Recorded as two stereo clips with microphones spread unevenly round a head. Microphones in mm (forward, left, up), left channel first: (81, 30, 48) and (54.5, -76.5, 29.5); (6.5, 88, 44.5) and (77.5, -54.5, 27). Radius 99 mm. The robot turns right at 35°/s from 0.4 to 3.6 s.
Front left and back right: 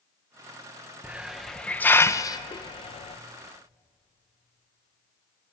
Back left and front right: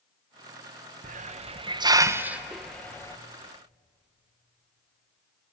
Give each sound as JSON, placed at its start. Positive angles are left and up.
{"t": 1.0, "sound": "a hiss", "azimuth_deg": -30, "distance_m": 1.0}